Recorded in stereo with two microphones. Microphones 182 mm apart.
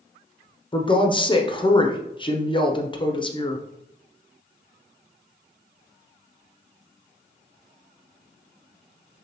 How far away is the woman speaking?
About 0.6 m.